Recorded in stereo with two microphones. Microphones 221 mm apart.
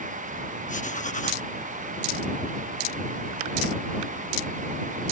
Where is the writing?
35° left (ahead or behind).